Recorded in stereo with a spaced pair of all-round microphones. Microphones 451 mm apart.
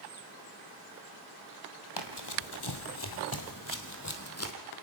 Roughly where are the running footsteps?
Left.